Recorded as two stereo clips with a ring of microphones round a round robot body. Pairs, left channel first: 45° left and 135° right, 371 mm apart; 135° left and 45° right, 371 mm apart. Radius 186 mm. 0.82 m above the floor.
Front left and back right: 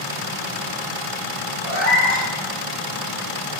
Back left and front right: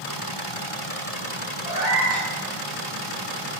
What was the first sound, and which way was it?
A cat meowing, 125° right.